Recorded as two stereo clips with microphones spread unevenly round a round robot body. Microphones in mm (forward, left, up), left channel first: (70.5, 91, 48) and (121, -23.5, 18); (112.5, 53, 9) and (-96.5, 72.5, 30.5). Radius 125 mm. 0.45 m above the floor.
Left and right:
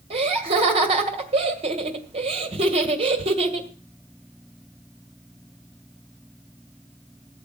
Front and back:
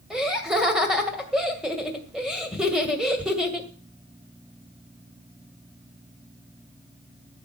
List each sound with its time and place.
0.1 s laughter: 95° right, 2 m